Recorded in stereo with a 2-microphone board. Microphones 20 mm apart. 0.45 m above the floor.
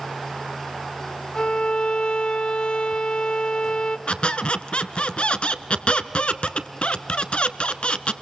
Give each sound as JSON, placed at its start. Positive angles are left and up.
{"t": 1.4, "sound": "a violin", "side_deg": 55, "distance_m": 0.8}
{"t": 4.1, "sound": "a squeak", "side_deg": 65, "distance_m": 1.1}